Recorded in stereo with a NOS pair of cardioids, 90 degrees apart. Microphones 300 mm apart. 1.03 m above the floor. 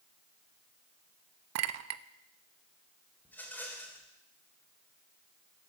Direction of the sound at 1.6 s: 70° right.